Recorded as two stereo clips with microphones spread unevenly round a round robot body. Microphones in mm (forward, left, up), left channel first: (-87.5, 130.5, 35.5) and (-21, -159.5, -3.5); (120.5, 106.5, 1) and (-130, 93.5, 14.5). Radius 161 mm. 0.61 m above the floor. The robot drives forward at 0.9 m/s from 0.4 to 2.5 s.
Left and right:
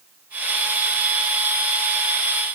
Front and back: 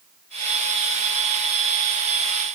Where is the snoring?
I don't hear snoring.